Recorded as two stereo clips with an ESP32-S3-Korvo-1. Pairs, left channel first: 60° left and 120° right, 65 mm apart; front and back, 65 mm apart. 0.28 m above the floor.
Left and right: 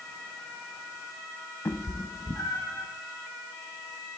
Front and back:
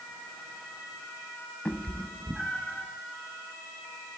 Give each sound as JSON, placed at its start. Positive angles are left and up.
{"t": 1.6, "sound": "a cat meowing", "azimuth_deg": 70, "distance_m": 0.6}